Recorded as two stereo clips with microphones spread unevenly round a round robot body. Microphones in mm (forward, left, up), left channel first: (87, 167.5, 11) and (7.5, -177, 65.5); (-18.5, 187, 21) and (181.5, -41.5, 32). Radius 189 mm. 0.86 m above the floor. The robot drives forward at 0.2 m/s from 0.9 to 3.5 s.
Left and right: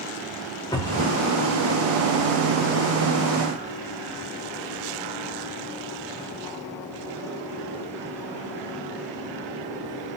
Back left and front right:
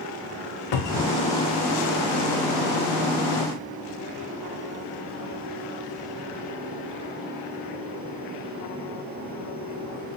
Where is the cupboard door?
160° left, 0.5 m; by 1.2 s 165° left, 0.6 m.